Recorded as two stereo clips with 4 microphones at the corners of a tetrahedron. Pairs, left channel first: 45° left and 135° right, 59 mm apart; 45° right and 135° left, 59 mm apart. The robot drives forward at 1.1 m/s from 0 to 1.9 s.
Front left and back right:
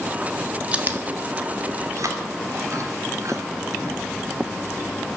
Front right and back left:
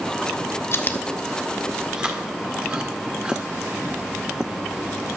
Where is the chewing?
70° right, 0.8 m; by 5.2 s 150° right, 1.3 m.